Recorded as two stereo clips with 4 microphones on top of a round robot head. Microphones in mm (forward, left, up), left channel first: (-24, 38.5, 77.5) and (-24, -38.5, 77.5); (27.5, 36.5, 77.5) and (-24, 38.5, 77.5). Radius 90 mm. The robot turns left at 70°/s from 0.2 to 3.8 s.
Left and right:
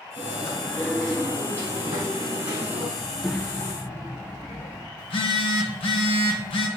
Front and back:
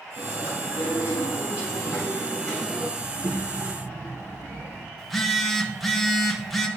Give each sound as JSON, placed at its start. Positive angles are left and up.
{"t": 0.2, "sound": "chewing", "azimuth_deg": 65, "distance_m": 3.5}
{"t": 3.0, "sound": "a child speaking", "azimuth_deg": -160, "distance_m": 0.7}
{"t": 5.0, "sound": "a phone buzzing", "azimuth_deg": 85, "distance_m": 1.2}